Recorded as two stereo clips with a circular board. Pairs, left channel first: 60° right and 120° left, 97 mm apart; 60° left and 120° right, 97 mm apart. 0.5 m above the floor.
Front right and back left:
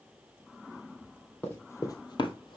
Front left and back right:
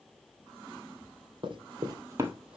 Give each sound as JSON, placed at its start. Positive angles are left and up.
{"t": 1.4, "sound": "running footsteps", "azimuth_deg": -130, "distance_m": 0.9}